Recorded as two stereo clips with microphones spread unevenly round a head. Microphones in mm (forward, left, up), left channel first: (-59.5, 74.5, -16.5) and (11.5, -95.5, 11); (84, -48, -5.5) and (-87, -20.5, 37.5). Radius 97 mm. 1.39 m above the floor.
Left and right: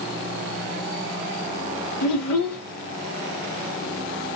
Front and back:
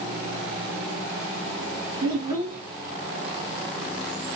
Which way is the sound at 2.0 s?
105° left.